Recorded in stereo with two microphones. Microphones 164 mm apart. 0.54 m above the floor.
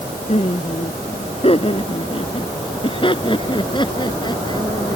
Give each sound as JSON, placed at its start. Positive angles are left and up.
{"t": 0.3, "sound": "laughter", "side_deg": 40}